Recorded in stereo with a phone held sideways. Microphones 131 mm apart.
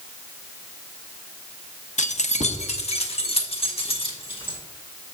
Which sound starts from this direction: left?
Keys jangling, at 2.0 s.